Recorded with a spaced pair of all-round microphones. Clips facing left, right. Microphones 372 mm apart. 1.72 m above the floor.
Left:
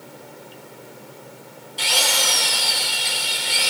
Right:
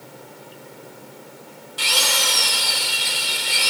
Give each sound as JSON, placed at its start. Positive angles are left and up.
{"t": 1.8, "sound": "a drill", "side_deg": -20, "distance_m": 1.5}